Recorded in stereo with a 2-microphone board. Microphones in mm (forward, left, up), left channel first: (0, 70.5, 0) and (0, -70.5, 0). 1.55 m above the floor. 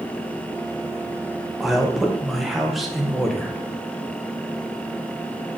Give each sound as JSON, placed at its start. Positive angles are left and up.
{"t": 1.6, "sound": "a man speaking", "side_deg": 0, "distance_m": 0.7}